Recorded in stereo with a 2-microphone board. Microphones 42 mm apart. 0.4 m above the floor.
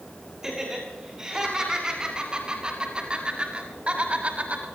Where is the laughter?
10° right (ahead or behind), 5.5 m; by 4.7 s 40° right (ahead or behind), 3 m.